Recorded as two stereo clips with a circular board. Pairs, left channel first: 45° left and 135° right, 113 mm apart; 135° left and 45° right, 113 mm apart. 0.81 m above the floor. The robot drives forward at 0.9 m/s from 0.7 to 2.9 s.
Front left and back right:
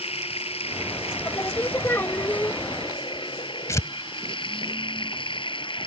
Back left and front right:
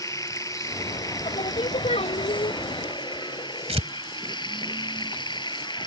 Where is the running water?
75° left; by 5.9 s 85° left.